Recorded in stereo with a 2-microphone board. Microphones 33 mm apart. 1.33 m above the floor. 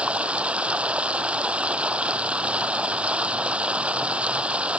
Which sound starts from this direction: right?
Running water, at 0.0 s.